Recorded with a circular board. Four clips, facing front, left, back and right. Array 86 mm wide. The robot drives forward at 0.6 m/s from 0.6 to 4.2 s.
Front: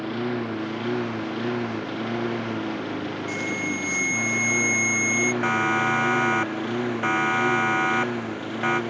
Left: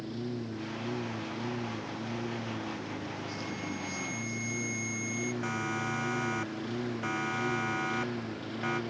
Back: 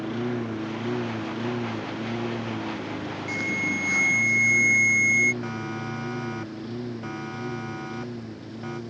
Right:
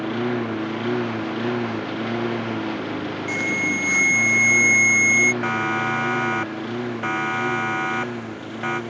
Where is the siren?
40° right; by 8.8 s 30° right.